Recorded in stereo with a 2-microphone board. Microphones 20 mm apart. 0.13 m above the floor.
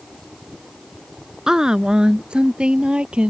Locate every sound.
1.5 s a woman speaking: 30° right (ahead or behind); by 3.3 s 55° right (ahead or behind)